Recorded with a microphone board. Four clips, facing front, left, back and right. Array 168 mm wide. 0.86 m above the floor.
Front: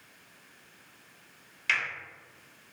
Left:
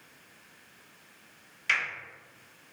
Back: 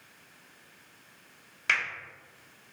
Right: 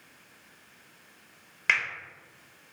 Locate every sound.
1.7 s a finger snap: 120° right, 1.9 m